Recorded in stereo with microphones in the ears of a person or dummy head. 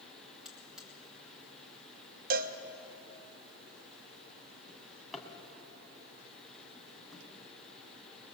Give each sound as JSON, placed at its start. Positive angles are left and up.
{"t": 0.5, "sound": "a buzzer", "side_deg": -5, "distance_m": 4.5}
{"t": 2.3, "sound": "a cowbell", "side_deg": -55, "distance_m": 1.2}
{"t": 4.7, "sound": "a drawer", "side_deg": 0, "distance_m": 3.0}